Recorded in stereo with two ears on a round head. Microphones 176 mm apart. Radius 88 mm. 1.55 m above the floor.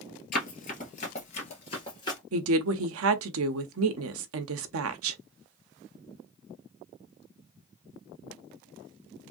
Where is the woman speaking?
70° right (ahead or behind), 0.7 m.